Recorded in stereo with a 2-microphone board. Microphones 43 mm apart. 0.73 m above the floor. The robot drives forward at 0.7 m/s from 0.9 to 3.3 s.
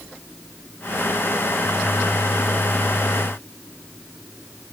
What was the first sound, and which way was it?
Only background noise.